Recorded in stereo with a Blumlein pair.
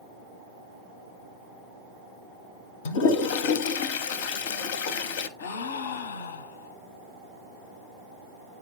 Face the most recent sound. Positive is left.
turn(degrees=60)